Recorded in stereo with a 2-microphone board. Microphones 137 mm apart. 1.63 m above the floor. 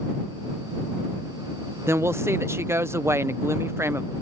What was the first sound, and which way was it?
A woman speaking, 20° right (ahead or behind).